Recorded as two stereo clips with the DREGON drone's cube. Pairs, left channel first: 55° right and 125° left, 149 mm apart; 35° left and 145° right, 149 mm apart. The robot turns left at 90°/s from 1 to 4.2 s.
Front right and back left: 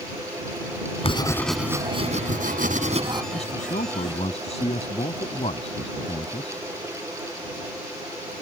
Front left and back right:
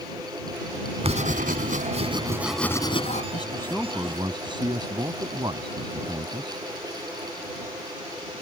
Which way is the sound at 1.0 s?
100° right.